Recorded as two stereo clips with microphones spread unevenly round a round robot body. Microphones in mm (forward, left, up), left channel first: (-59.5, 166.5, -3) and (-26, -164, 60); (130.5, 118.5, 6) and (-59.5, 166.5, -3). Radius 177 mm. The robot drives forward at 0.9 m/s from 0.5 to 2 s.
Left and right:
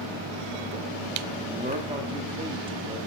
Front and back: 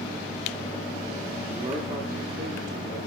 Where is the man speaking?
140° right, 0.7 m; by 3.0 s 165° right, 0.9 m.